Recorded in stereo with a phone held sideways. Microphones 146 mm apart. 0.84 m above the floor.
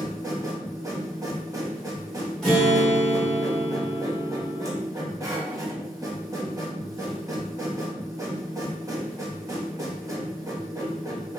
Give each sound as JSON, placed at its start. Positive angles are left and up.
{"t": 0.0, "sound": "a machine running", "side_deg": -25, "distance_m": 0.9}
{"t": 2.4, "sound": "a guitar", "side_deg": 5, "distance_m": 1.3}